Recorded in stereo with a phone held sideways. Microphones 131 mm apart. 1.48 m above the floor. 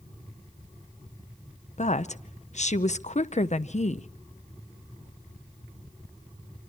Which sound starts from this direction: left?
A woman speaking, at 1.8 s.